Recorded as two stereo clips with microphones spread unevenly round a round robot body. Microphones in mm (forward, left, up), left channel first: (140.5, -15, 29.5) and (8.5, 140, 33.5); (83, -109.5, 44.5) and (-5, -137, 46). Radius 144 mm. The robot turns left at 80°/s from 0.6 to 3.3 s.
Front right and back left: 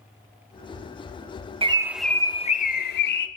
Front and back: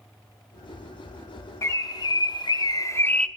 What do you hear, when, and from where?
1.6 s a bird: 70° left, 0.8 m; by 3.3 s 60° right, 0.8 m